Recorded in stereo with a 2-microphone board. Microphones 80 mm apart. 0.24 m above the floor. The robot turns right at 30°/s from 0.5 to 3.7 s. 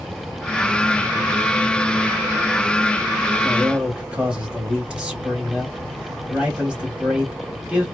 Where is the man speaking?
10° right (ahead or behind), 1.0 m; by 7.9 s 15° right (ahead or behind), 1.0 m.